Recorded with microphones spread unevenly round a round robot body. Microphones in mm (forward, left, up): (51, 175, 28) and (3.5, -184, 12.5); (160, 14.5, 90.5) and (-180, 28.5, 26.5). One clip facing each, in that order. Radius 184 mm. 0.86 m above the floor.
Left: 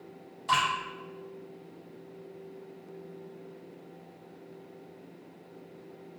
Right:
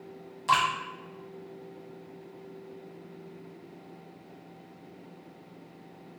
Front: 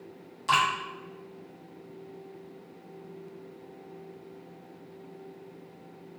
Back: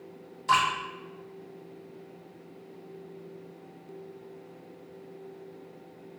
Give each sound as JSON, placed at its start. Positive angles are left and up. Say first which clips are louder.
{"t": 0.5, "sound": "dripping", "louder": "right 2 dB, back 1 dB", "azimuth_deg": -65, "distance_m": 1.4}